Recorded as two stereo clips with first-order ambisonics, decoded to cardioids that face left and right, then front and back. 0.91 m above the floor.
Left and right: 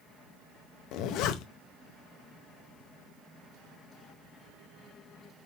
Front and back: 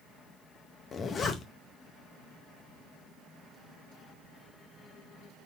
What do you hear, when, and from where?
0.9 s a zipper: 65° left, 0.6 m